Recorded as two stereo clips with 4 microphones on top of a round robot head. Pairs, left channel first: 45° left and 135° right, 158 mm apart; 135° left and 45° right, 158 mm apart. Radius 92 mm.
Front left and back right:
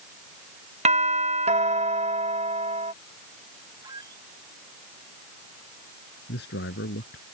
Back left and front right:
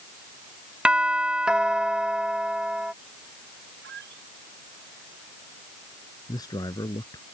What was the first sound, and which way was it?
A doorbell, 125° right.